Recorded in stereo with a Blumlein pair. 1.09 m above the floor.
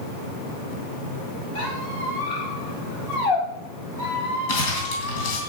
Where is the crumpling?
50° left, 3.5 m.